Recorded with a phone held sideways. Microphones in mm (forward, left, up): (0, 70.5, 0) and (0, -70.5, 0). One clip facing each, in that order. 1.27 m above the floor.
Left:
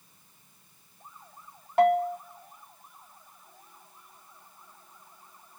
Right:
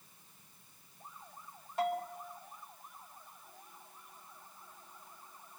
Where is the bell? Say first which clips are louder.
Left 13 dB; 80° left, 1.4 m.